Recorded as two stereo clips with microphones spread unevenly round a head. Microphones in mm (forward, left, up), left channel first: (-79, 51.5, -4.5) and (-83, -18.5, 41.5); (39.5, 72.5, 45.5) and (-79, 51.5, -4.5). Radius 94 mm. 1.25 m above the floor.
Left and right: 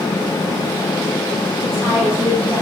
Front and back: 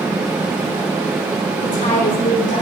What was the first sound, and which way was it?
A woman speaking, 20° left.